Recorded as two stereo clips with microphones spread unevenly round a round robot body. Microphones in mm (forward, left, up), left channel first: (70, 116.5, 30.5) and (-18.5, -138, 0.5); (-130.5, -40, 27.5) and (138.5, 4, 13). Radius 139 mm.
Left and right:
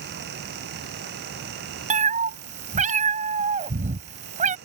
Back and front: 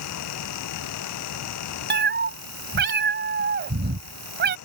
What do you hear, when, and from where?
1.9 s a cat meowing: 45° right